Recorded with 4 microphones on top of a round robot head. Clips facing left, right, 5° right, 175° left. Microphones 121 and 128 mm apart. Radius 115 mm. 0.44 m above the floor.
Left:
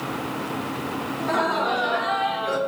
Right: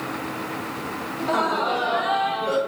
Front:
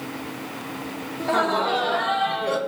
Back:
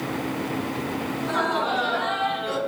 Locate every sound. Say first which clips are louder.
1.2 s laughter: right 1 dB, front 4 dB; 15° right, 2.5 m; by 2.6 s 20° right, 2.0 m